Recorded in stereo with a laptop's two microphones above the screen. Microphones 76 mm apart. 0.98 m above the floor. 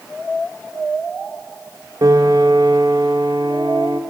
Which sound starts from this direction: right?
A piano, at 2.0 s.